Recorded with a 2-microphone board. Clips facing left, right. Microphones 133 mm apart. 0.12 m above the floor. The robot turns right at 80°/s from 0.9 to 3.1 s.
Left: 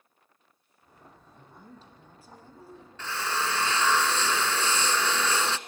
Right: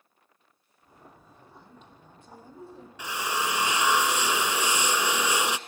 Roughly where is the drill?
Centre.